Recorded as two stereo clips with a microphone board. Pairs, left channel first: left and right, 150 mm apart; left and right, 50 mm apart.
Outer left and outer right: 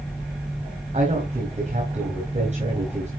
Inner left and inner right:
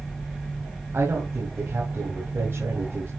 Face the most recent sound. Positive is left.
turn(degrees=-45)  # may be behind; listen again after turning